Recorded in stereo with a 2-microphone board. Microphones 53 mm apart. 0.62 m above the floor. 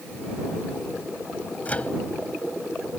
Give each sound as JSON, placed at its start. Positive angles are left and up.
{"t": 1.6, "sound": "a microwave", "side_deg": 30}